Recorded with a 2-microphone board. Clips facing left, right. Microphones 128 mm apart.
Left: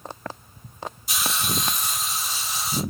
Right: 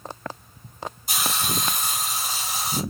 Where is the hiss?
50° right (ahead or behind), 3 m.